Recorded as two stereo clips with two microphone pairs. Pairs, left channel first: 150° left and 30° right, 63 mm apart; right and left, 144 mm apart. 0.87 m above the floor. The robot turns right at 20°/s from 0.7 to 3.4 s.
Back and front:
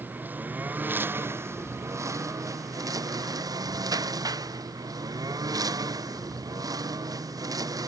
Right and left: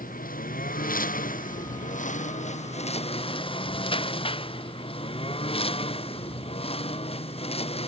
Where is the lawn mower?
90° right; by 7.9 s 45° right.